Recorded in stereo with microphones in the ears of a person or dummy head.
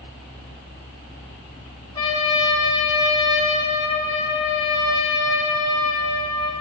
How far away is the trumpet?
About 3 m.